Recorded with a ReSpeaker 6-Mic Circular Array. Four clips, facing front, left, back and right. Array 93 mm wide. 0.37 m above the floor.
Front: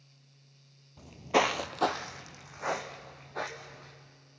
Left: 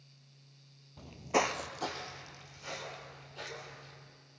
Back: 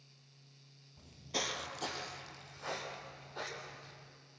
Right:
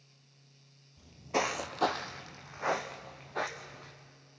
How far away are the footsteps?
About 0.7 m.